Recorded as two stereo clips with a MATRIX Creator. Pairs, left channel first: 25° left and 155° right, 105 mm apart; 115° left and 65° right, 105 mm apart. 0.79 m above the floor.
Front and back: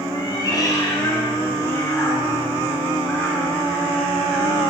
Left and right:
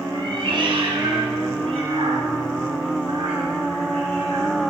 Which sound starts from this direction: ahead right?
A cat meowing, at 0.1 s.